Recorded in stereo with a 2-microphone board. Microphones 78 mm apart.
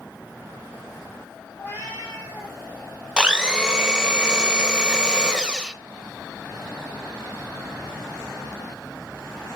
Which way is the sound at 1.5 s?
25° left (ahead or behind).